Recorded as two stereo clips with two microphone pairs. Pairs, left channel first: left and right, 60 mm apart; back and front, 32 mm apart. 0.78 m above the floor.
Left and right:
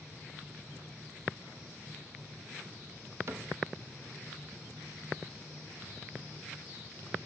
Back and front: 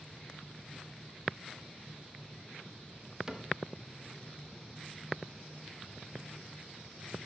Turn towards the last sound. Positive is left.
turn(degrees=-75)